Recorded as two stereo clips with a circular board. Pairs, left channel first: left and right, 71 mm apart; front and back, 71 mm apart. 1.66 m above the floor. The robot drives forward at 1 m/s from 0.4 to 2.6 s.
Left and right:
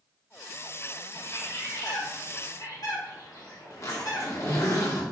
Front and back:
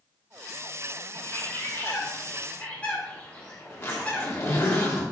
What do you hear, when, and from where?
1.1 s a bird: 45° left, 3.5 m; by 4.6 s 70° left, 2.5 m
3.7 s a zipper: 50° left, 2.5 m